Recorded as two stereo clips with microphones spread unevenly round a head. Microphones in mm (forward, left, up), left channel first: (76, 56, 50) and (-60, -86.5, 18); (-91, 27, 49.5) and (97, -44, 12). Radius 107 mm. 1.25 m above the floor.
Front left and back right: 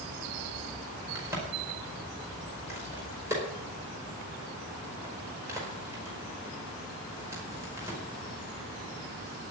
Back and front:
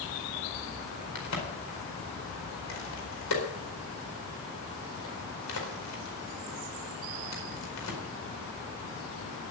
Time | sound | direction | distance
1.1 | a crack | 145° left | 4.5 m